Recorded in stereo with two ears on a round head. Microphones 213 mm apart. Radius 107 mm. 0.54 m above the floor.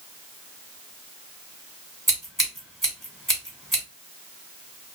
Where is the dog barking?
I don't hear a dog barking.